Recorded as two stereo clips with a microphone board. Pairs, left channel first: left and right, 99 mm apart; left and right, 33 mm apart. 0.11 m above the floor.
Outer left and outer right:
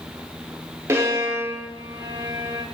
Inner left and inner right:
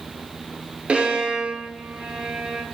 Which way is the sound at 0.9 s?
30° right (ahead or behind).